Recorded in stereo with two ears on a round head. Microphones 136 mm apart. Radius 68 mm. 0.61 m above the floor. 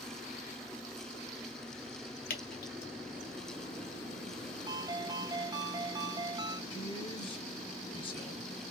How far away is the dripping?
About 1.4 m.